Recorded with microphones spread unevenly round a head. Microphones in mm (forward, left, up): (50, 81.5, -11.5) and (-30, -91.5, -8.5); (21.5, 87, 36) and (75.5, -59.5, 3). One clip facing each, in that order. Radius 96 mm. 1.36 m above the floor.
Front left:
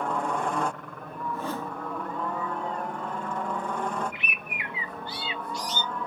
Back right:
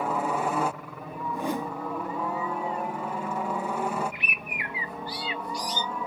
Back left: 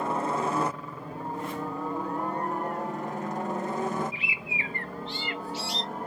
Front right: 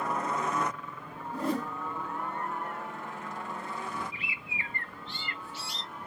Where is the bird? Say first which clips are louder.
Back right 1 dB, back left 5 dB; 130° left.